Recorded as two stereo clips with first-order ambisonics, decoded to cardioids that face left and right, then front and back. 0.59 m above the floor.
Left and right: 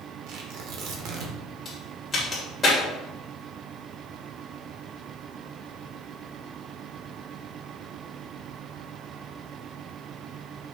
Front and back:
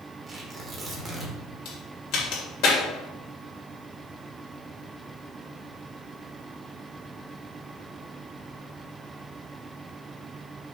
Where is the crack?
15° left, 3 m.